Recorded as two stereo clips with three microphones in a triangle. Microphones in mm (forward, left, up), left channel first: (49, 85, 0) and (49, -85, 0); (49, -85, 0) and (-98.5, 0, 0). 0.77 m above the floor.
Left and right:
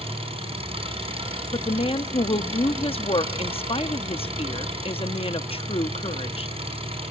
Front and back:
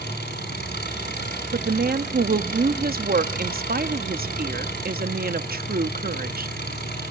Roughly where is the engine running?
Ahead right.